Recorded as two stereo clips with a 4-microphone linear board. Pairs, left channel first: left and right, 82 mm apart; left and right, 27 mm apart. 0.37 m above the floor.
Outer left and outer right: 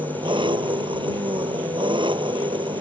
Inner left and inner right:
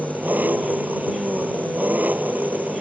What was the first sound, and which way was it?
An engine running, 80° right.